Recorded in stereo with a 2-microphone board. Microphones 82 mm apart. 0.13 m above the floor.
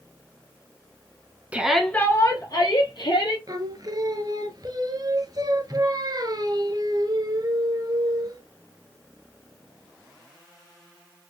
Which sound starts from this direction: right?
Singing, at 3.5 s.